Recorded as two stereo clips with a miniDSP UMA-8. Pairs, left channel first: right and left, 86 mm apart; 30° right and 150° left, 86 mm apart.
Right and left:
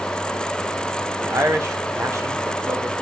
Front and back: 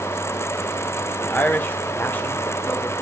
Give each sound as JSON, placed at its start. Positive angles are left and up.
{"t": 1.2, "sound": "a man speaking", "azimuth_deg": 35, "distance_m": 1.1}